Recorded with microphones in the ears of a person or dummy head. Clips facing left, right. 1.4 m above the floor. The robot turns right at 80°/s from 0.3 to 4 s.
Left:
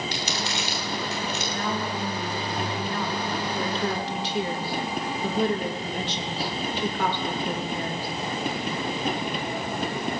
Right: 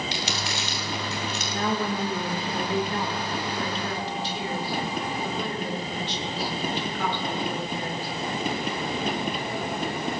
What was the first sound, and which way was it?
Crumpling, 40° left (ahead or behind).